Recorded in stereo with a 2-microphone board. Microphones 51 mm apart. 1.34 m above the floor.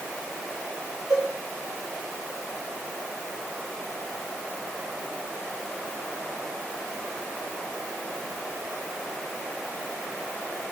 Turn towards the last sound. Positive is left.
turn(degrees=-80)